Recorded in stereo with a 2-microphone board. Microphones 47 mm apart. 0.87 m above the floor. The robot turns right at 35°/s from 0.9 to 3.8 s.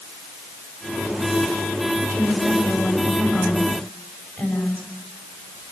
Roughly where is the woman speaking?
Right.